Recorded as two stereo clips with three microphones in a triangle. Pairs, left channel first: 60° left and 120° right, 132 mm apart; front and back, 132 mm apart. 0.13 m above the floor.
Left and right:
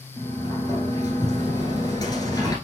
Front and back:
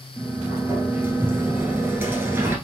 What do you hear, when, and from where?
0.2 s a sliding door: 110° left, 1.3 m